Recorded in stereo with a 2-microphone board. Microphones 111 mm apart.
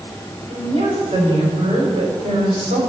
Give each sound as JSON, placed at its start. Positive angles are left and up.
{"t": 0.5, "sound": "a woman speaking", "side_deg": -70, "distance_m": 4.0}